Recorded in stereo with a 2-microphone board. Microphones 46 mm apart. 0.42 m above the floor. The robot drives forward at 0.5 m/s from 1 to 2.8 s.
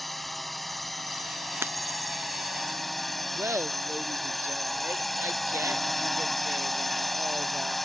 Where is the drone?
Centre (ahead or behind); by 7.8 s 5° left (ahead or behind).